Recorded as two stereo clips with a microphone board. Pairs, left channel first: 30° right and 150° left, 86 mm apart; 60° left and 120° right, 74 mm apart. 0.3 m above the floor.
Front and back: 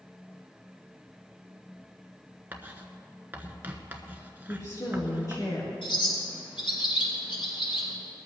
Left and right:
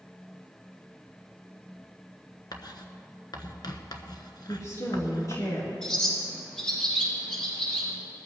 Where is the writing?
80° left, 1.2 m.